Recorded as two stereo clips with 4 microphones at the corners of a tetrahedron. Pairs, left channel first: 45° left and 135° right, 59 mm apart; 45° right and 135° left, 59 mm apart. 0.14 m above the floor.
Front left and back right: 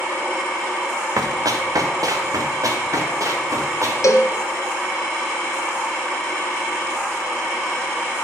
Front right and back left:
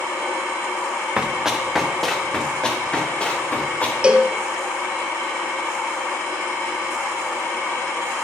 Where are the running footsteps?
150° right, 1.7 m; by 3.9 s 110° right, 4 m.